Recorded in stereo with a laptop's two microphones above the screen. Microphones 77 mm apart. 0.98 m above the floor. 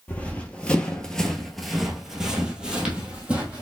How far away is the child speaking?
I don't hear a child speaking.